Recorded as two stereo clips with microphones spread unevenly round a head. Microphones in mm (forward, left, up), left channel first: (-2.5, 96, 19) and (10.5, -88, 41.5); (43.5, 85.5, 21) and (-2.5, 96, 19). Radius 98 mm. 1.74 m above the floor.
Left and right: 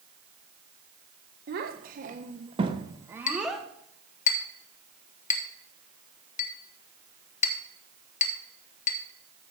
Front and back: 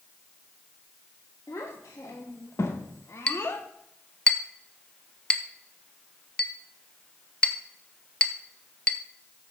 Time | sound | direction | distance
1.5 | a child speaking | 55° right | 1.4 m
3.3 | a clink | 45° left | 1.0 m